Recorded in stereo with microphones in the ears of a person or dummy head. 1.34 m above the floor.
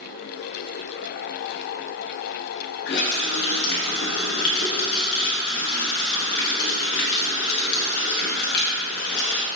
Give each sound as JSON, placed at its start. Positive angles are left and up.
{"t": 2.9, "sound": "a running tap", "side_deg": 60, "distance_m": 0.8}